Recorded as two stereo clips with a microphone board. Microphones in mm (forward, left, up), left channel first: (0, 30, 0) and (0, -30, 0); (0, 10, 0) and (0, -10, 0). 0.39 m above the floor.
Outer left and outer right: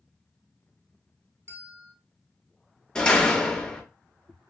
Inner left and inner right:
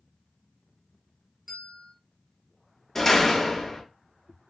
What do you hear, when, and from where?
1.5 s a bell: 45° right (ahead or behind), 1.5 m
3.0 s a door slam: 15° left (ahead or behind), 0.5 m